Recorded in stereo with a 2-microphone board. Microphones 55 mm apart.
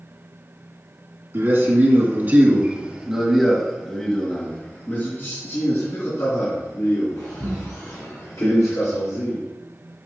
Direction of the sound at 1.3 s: 50° right (ahead or behind).